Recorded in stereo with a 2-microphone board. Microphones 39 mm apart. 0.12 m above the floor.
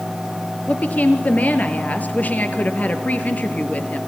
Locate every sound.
0.7 s a woman speaking: 45° left (ahead or behind), 2.0 m